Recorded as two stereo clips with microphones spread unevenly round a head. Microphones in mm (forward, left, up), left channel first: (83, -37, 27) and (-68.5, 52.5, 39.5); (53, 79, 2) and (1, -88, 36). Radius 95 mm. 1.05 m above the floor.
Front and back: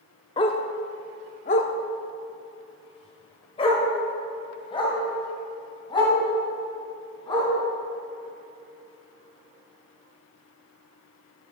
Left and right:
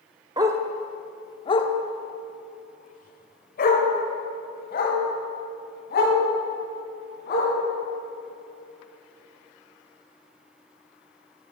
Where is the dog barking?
85° right, 0.6 m; by 7.5 s 35° left, 4 m.